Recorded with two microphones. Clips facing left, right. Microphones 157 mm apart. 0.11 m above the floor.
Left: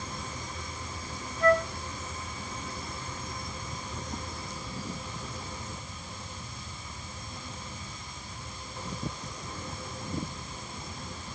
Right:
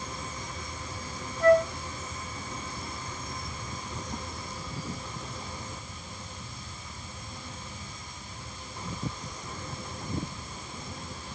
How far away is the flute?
About 1.5 m.